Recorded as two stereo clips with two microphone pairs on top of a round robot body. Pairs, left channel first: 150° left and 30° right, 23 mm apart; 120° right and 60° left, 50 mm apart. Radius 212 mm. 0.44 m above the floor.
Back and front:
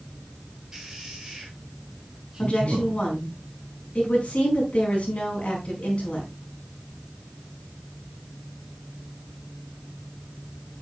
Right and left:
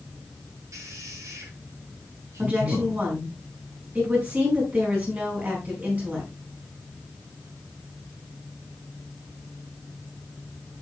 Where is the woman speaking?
115° left, 9.5 m.